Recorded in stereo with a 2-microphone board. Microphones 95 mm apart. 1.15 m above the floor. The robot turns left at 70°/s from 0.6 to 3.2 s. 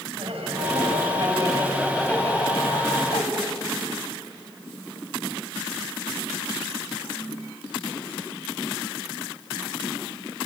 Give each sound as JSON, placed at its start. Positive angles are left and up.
{"t": 0.1, "sound": "laughter", "azimuth_deg": -90, "distance_m": 6.0}